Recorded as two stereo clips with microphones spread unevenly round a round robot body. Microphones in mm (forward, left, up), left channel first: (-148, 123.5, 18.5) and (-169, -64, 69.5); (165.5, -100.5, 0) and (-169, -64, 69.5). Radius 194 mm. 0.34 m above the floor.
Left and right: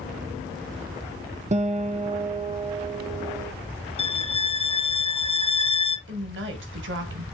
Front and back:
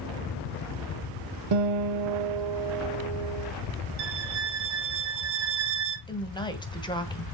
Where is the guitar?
160° right, 0.7 m.